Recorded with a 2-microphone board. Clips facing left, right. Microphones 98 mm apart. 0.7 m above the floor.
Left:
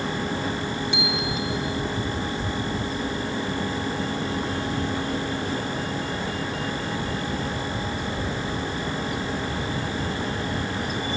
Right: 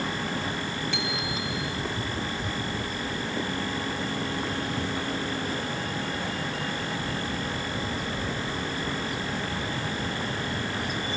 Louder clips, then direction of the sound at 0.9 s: Left 4 dB; 20° left (ahead or behind).